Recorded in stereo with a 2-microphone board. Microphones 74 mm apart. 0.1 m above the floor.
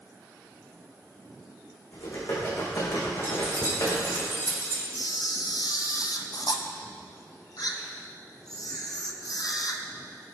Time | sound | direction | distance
1.9 | typing on a keyboard | 75° left (ahead or behind) | 6 m
3.2 | keys jangling | 40° left (ahead or behind) | 3.5 m
5.0 | a camera shutter | 60° left (ahead or behind) | 1.3 m